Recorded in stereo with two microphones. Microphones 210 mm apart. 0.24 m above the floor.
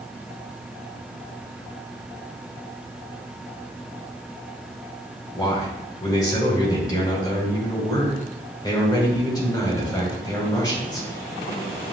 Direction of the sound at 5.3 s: 20° left (ahead or behind).